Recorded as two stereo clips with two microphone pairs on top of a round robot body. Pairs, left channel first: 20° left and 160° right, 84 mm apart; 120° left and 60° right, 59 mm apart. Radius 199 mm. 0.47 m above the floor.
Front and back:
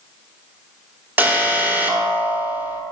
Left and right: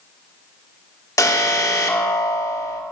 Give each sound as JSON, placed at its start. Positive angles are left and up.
{"t": 1.2, "sound": "an alarm", "azimuth_deg": 135, "distance_m": 1.4}